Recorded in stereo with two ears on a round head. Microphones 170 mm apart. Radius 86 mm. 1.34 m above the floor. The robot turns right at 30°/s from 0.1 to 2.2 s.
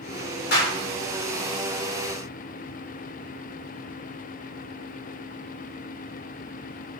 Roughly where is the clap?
Left.